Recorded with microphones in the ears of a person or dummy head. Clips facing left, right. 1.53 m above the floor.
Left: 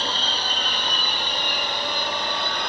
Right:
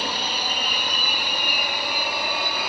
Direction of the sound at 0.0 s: 15° right (ahead or behind).